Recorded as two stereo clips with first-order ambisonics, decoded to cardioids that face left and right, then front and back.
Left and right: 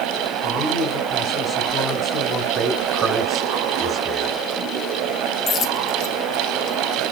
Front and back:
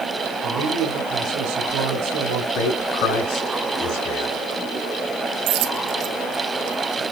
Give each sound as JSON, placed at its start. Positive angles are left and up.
{"t": 0.4, "sound": "a man speaking", "azimuth_deg": 160, "distance_m": 3.5}
{"t": 2.5, "sound": "a man speaking", "azimuth_deg": -20, "distance_m": 6.0}
{"t": 5.5, "sound": "a dropped coin", "azimuth_deg": 150, "distance_m": 3.0}